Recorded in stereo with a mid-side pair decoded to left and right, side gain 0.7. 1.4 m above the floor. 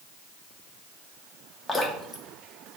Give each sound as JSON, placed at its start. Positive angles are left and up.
{"t": 1.7, "sound": "dripping", "azimuth_deg": 15, "distance_m": 0.9}